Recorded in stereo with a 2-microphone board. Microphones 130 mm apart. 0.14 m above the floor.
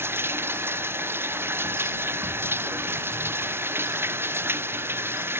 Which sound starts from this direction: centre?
Running water, at 0.0 s.